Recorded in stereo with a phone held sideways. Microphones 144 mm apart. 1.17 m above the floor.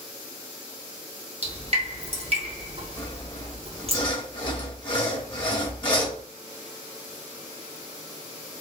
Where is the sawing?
35° left (ahead or behind), 1.1 m.